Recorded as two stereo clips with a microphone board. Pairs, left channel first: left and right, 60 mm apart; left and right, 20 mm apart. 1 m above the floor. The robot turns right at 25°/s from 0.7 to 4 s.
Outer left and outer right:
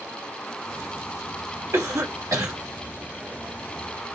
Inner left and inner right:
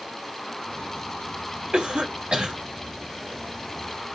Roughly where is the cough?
Right.